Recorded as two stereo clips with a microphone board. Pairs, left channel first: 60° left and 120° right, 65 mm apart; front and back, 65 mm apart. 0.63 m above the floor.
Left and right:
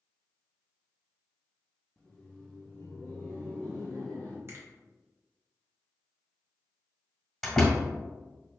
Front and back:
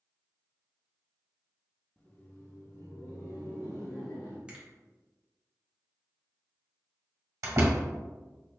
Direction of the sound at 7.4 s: 150° left.